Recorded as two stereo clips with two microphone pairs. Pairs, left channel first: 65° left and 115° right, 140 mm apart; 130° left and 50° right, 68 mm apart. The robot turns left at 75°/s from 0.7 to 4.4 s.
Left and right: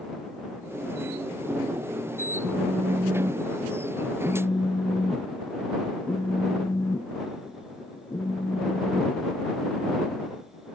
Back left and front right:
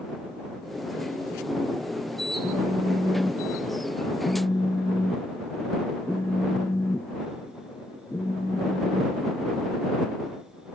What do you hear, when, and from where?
2.4 s a phone buzzing: 95° right; by 9.2 s 115° left